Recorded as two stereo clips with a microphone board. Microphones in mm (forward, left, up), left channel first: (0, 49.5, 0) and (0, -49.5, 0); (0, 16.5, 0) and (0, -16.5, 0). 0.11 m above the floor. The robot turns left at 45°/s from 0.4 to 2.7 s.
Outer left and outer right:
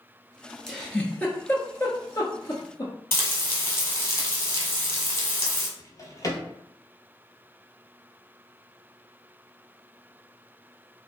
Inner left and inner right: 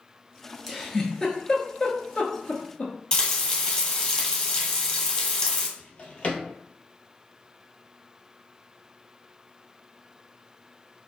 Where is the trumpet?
I don't hear a trumpet.